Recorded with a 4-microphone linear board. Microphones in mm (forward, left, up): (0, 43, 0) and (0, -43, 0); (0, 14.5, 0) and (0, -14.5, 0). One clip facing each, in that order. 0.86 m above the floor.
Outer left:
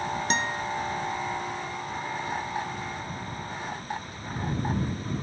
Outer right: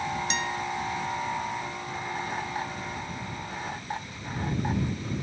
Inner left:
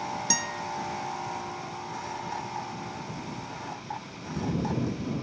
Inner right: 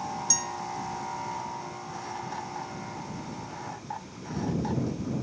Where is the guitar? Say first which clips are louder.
Outer left 2 dB, inner left 2 dB; 40° left (ahead or behind).